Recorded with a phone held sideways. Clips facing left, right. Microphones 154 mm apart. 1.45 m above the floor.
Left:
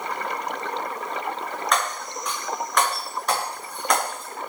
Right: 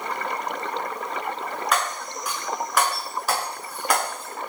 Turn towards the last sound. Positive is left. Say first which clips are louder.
# left 1 dB
turn(degrees=-5)  # may be behind; listen again after turning